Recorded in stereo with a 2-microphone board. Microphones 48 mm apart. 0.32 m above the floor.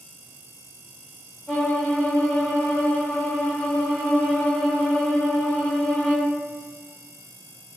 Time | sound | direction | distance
1.5 | a violin | 25° left (ahead or behind) | 1.5 m